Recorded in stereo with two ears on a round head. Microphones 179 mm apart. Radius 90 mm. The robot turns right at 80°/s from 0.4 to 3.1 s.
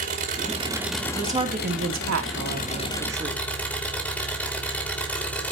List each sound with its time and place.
0.0 s an engine running: 45° right, 4 m; by 5.5 s 170° left, 4 m
1.1 s a woman speaking: 175° right, 4 m; by 3.4 s 15° right, 4 m